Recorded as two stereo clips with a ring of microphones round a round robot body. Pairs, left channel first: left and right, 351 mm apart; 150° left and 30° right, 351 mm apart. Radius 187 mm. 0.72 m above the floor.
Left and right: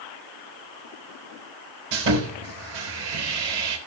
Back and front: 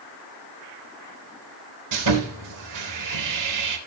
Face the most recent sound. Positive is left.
turn(degrees=-70)